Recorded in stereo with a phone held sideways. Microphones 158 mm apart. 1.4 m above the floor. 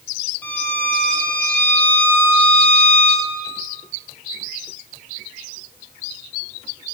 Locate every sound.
0.4 s a violin: 10° left (ahead or behind), 7.5 m